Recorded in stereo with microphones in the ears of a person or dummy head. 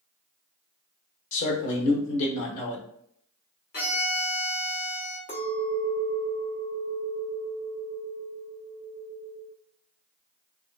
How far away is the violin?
About 1.5 m.